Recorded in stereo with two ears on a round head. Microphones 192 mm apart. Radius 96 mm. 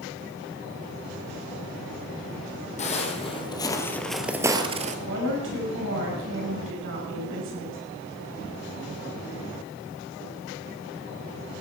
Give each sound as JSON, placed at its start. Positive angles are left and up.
{"t": 2.8, "sound": "footsteps", "side_deg": 35, "distance_m": 2.5}
{"t": 5.0, "sound": "a woman speaking", "side_deg": -70, "distance_m": 5.0}